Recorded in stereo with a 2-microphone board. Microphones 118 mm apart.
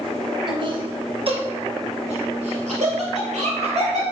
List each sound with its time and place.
0.5 s laughter: 45° right (ahead or behind), 1.9 m; by 4.0 s 70° right (ahead or behind), 4.5 m